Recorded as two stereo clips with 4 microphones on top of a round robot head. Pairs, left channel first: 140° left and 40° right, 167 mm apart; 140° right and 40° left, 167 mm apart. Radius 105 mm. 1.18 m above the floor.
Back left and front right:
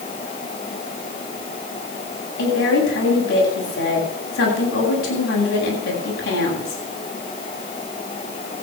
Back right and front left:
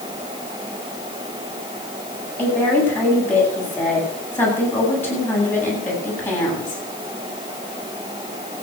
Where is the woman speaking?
140° left, 8.5 m.